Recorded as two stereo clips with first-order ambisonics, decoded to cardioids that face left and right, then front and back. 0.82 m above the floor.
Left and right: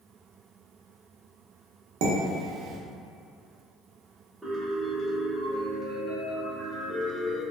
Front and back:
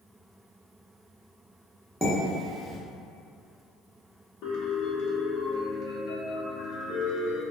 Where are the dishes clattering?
95° right, 0.6 m.